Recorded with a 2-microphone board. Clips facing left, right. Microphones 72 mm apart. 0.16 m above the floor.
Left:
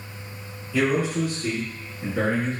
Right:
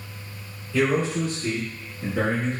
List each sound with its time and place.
0.7 s a man speaking: 10° left (ahead or behind), 1.5 m; by 2.6 s centre (ahead or behind), 1.1 m